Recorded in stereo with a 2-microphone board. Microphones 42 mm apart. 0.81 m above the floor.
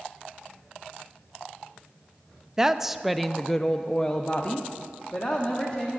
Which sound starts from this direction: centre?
A woman speaking, at 2.6 s.